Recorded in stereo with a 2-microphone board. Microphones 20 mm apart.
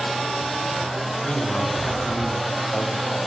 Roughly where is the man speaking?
Left.